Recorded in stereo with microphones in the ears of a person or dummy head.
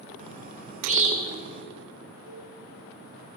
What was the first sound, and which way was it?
A bird, 35° right (ahead or behind).